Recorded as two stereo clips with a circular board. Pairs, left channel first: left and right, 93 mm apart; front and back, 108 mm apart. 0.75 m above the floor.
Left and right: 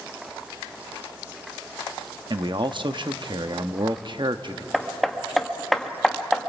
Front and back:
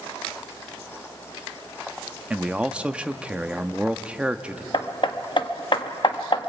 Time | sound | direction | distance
2.3 | a man speaking | 100° right | 0.8 m
4.7 | hammering | 5° left | 1.0 m